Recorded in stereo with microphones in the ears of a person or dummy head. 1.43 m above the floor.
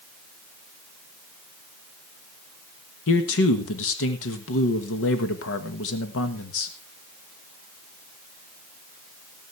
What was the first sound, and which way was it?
A man speaking, 75° left (ahead or behind).